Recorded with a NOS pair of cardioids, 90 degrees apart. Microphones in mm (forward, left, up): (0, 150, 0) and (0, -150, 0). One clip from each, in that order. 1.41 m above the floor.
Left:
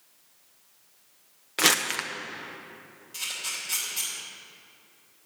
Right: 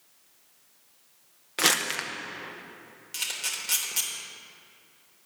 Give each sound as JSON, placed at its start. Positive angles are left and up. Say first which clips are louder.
{"t": 1.6, "sound": "crumpling", "louder": "left 1 dB", "azimuth_deg": 5, "distance_m": 0.8}
{"t": 3.1, "sound": "a camera shutter", "louder": "right 1 dB", "azimuth_deg": -65, "distance_m": 3.0}